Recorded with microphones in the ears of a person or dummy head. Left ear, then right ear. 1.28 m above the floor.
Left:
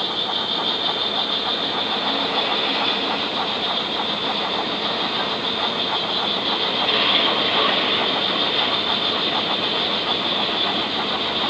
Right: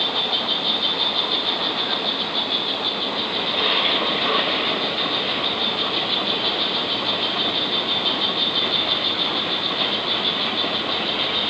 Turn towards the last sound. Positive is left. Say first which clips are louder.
# right 1 dB
turn(degrees=-40)  # may be behind; listen again after turning